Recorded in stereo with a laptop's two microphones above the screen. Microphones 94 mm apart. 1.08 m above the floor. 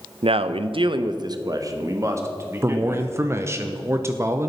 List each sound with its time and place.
0.2 s a man speaking: 70° right (ahead or behind), 0.5 m; by 3.6 s 20° right (ahead or behind), 2.5 m
2.6 s a man speaking: 30° right (ahead or behind), 0.7 m